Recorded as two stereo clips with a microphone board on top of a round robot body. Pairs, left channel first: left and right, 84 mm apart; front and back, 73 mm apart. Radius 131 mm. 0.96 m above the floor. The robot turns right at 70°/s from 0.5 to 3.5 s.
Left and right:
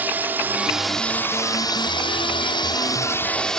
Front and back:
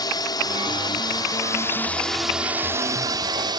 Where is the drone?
20° right; by 3.6 s 175° left.